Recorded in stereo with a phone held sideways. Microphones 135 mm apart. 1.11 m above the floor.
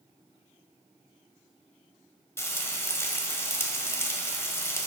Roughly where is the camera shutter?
I don't hear a camera shutter.